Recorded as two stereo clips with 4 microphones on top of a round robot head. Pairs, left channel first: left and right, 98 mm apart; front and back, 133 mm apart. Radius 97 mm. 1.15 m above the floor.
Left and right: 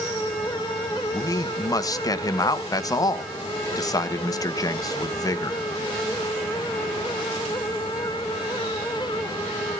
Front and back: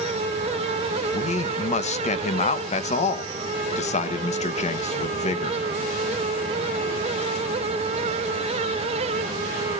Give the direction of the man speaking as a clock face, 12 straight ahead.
11 o'clock.